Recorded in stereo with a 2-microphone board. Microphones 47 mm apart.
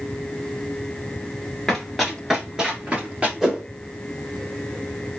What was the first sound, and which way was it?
Running footsteps, 5° left (ahead or behind).